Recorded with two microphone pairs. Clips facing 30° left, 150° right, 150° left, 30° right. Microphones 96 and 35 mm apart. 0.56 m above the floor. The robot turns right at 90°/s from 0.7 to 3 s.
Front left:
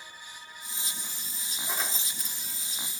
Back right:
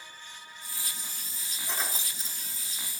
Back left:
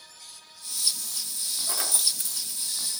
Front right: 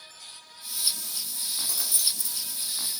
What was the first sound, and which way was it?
Keys jangling, 110° left.